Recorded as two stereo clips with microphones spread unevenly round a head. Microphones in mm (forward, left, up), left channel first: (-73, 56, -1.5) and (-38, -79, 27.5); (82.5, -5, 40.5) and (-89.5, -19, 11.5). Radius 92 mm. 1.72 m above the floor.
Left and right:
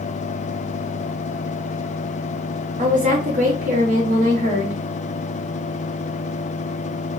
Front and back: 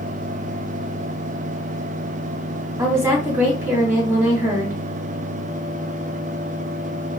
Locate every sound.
2.8 s a woman speaking: 100° right, 1.7 m